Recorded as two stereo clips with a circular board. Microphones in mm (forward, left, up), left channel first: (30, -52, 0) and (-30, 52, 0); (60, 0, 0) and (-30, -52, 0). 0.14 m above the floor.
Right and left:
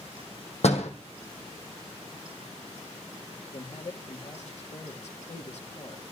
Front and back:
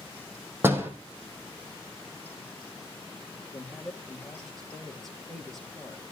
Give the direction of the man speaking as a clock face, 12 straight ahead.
2 o'clock.